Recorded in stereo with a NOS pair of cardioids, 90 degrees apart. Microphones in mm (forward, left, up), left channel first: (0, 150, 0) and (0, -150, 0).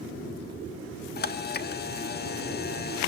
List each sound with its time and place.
1.2 s a camera shutter: 35° left, 1.4 m